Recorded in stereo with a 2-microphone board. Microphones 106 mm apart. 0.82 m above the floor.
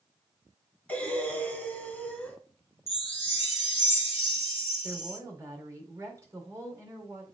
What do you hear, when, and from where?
0.9 s breathing: 10° left (ahead or behind), 2.5 m
2.9 s a chime: 65° left (ahead or behind), 1.6 m
4.8 s a woman speaking: 30° right (ahead or behind), 2.5 m